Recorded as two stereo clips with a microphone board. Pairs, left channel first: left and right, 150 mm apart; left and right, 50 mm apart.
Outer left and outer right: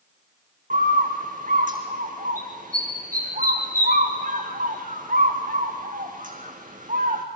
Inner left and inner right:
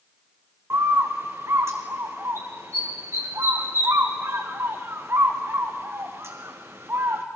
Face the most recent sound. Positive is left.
turn(degrees=-60)  # may be behind; listen again after turning